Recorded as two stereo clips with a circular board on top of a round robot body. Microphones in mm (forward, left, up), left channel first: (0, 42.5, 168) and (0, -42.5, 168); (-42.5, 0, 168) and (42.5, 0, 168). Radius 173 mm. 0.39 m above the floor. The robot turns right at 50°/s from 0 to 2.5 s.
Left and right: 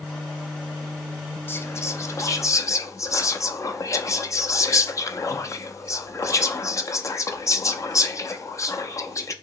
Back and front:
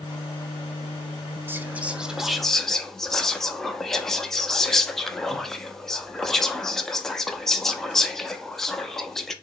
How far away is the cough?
I don't hear a cough.